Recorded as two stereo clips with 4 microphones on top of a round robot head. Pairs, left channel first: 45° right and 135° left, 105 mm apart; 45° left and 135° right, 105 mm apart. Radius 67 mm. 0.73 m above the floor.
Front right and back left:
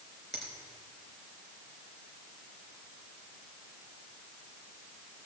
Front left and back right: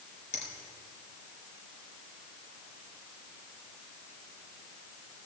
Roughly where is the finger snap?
Ahead left.